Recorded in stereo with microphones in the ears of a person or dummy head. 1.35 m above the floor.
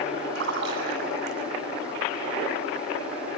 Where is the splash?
60° right (ahead or behind), 6.5 m.